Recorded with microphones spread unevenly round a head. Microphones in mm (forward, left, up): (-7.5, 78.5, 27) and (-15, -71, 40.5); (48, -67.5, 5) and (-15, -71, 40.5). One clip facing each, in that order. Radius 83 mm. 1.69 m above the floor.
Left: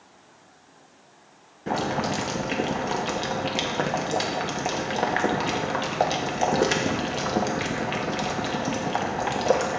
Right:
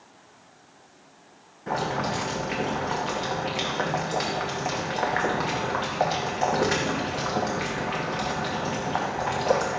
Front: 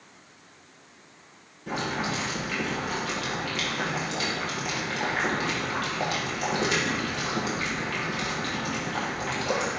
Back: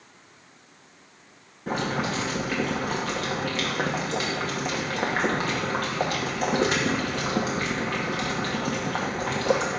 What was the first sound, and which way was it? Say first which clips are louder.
Boiling: left 2 dB, back 3 dB; 150° left.